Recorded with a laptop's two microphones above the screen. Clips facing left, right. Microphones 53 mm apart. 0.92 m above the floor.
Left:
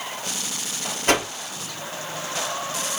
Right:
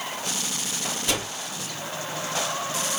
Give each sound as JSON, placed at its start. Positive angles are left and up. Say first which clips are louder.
{"t": 1.1, "sound": "a whoosh", "louder": "left 9 dB", "side_deg": 45, "distance_m": 2.5}